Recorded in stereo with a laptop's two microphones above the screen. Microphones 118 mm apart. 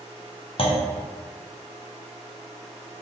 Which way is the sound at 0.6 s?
50° left (ahead or behind).